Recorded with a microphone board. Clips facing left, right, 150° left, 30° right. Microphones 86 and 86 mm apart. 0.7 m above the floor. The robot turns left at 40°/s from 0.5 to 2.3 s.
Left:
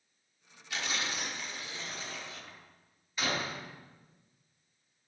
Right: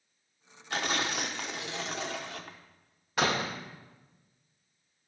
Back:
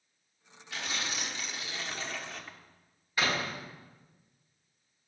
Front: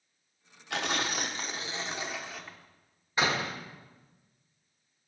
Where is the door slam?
95° right, 1.3 m.